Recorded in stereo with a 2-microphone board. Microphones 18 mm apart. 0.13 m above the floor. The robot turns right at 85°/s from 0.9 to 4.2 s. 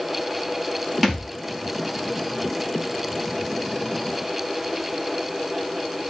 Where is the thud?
10° left (ahead or behind), 4.5 m; by 1.3 s 10° right (ahead or behind), 4.5 m.